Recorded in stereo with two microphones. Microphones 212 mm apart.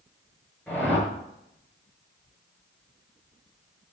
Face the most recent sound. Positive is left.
turn(degrees=5)  # may be behind; listen again after turning